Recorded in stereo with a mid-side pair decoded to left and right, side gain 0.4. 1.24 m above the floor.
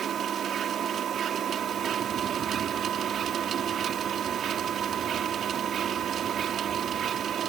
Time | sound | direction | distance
0.0 | a machine running | 70° right | ?